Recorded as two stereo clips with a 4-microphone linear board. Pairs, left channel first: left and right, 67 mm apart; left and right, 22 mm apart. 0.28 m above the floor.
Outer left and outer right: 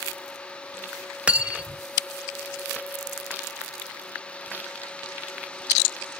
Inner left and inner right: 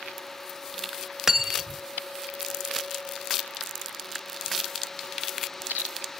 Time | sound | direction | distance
1.3 | cutlery clinking | 20° right (ahead or behind) | 0.5 m